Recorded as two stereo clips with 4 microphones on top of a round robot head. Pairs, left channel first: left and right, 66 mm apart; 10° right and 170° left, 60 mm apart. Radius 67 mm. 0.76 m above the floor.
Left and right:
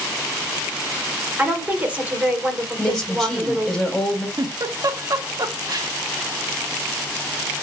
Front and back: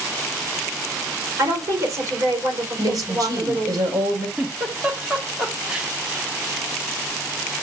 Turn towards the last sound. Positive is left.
turn(degrees=-115)